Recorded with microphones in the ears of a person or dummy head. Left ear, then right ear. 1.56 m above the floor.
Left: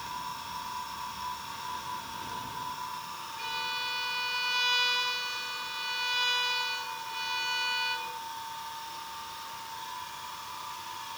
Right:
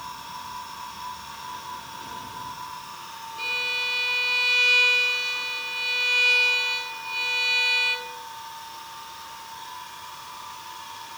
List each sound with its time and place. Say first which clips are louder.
3.4 s a violin: right 8 dB; 35° right (ahead or behind), 4 m